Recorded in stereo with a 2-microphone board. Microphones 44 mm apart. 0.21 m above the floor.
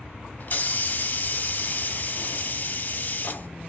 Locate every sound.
0.4 s a hiss: 40° left (ahead or behind), 0.7 m